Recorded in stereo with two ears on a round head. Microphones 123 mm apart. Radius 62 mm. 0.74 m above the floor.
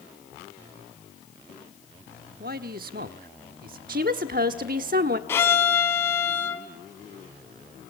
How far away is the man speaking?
About 1.4 m.